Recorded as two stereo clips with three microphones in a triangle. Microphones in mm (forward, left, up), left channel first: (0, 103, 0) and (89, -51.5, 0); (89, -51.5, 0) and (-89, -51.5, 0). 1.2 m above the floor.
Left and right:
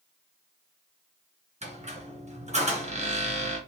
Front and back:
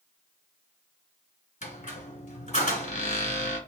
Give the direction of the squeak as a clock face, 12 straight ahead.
1 o'clock.